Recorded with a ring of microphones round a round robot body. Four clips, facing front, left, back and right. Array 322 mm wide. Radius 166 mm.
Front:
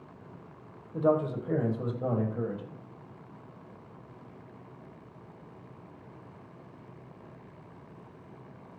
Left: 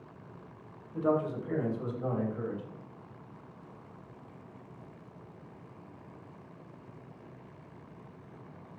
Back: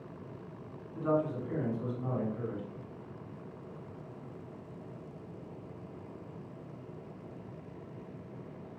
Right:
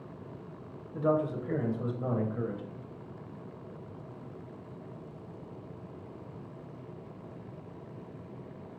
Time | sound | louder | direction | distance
0.9 | a man speaking | right 1 dB, front 4 dB | 20° right | 3 m